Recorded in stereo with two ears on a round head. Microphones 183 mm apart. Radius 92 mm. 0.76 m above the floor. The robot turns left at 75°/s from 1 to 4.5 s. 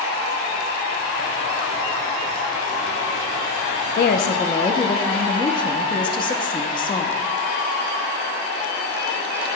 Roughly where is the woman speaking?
Left.